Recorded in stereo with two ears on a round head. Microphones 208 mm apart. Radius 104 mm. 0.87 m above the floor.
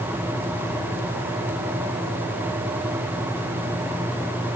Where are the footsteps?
No footsteps in this recording.